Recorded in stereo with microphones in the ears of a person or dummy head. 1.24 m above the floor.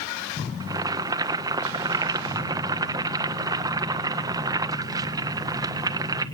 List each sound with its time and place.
0.6 s boiling: 20° right (ahead or behind), 0.6 m